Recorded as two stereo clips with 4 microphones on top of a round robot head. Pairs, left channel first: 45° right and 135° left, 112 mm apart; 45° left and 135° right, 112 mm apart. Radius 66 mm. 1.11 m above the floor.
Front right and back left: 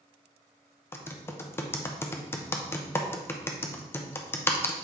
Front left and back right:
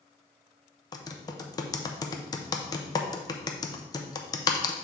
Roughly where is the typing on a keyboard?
Ahead.